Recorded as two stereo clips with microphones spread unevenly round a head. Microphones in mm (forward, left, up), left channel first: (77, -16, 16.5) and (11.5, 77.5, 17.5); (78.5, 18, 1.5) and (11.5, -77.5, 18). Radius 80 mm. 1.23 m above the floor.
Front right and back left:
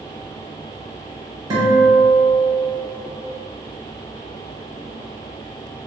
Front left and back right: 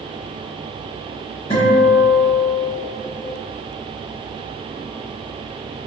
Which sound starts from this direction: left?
A guitar, at 1.5 s.